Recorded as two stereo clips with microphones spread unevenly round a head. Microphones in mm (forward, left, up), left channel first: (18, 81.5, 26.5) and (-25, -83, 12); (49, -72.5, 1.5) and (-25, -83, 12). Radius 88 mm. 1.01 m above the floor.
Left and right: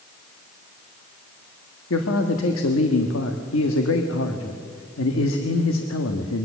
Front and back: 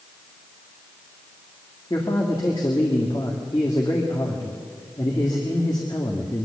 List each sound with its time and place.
1.9 s a man speaking: 70° left, 1.5 m